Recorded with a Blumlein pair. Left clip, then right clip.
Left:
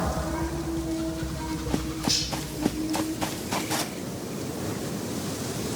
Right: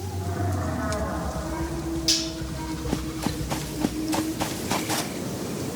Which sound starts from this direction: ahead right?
Cutlery clinking, at 2.1 s.